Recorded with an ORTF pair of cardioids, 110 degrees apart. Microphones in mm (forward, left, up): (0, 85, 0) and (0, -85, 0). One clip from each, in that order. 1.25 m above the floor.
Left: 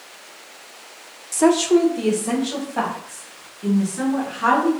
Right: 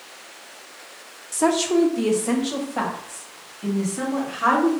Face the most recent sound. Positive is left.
turn(degrees=-15)